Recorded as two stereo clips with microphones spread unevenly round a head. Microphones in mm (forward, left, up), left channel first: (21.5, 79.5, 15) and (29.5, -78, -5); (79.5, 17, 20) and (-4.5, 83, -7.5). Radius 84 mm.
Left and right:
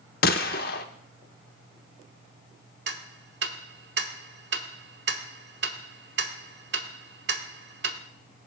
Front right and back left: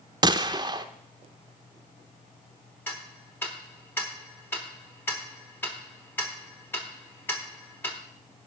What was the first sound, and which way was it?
A gunshot, 115° left.